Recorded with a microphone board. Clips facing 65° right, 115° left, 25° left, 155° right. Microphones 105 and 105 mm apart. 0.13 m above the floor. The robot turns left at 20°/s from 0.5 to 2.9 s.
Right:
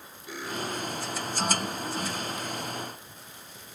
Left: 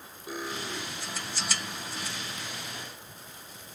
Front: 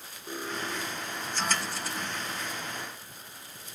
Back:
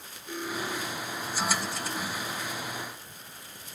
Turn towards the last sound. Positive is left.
turn(degrees=20)